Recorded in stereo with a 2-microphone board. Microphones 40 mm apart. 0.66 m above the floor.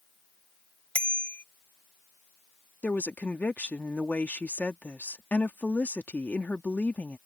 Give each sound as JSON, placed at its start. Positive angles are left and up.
{"t": 0.9, "sound": "a bicycle bell", "side_deg": 30}
{"t": 2.8, "sound": "a woman speaking", "side_deg": 40}